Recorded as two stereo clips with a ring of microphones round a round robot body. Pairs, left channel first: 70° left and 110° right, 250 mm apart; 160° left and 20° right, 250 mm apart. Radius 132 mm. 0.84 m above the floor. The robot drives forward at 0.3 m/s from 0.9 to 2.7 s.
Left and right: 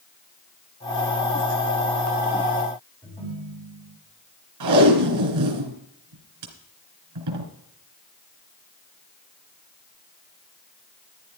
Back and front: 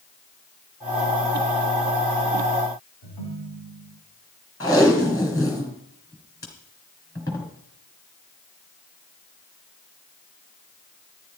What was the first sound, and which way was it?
A ringtone, 140° left.